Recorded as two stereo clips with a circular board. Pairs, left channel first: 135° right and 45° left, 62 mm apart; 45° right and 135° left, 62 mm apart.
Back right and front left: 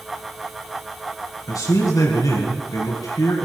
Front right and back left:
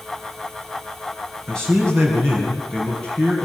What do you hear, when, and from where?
1.5 s a man speaking: 125° right, 4.5 m; by 3.5 s 115° right, 6 m